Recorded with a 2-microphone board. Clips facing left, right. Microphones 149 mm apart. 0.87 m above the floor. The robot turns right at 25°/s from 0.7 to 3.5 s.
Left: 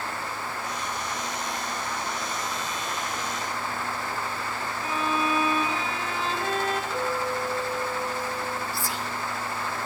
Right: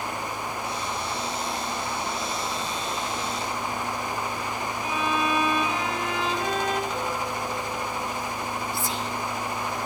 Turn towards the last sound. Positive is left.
turn(degrees=-20)  # may be behind; listen again after turning